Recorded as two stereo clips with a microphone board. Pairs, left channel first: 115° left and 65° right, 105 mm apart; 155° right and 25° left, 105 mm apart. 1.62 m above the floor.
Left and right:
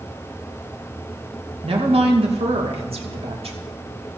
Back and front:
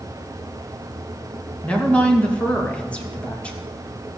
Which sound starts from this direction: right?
A woman speaking, at 1.6 s.